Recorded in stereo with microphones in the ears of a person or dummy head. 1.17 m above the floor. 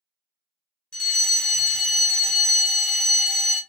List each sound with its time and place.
0.9 s a fire alarm: centre (ahead or behind), 0.9 m